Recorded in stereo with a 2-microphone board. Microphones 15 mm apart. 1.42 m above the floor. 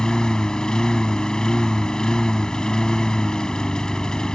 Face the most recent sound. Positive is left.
turn(degrees=70)  # may be behind; listen again after turning